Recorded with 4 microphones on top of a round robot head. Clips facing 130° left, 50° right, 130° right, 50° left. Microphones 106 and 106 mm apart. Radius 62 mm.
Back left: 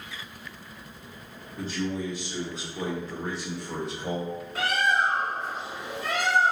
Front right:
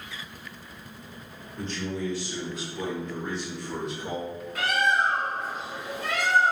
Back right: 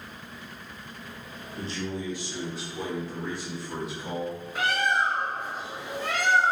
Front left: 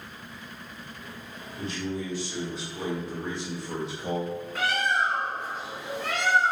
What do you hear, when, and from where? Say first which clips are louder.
1.6 s a man speaking: back left 1 dB, front left 1 dB; 150° right, 1.1 m; by 4.4 s 90° left, 1.6 m
4.5 s a bird: front right 1 dB, back right 1 dB; 160° left, 1.6 m